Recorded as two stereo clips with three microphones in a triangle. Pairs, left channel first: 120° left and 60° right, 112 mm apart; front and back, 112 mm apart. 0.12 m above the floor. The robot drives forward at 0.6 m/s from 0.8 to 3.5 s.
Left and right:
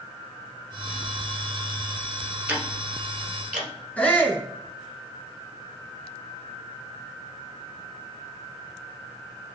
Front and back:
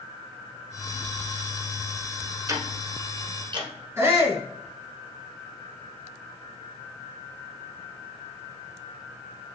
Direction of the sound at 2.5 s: 135° right.